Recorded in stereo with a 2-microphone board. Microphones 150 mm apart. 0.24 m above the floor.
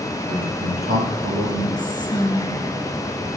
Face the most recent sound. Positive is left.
turn(degrees=30)  # may be behind; listen again after turning